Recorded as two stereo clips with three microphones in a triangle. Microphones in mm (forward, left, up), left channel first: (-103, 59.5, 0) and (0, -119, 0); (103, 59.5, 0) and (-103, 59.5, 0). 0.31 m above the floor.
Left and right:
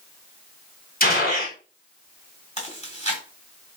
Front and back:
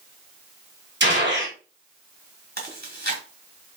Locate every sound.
1.0 s a gunshot: 160° left, 1.8 m
2.6 s chewing: 170° left, 2 m